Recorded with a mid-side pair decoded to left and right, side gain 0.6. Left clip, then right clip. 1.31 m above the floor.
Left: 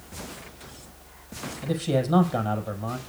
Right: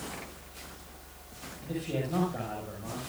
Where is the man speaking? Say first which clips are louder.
Left 8 dB; 60° left, 6.5 m.